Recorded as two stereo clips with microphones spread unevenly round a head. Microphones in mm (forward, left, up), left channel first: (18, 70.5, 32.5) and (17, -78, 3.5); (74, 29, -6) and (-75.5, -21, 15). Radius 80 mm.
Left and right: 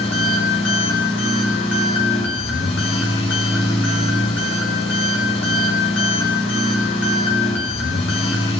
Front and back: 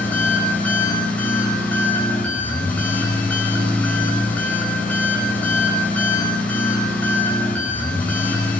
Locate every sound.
0.0 s an engine running: 100° left, 5 m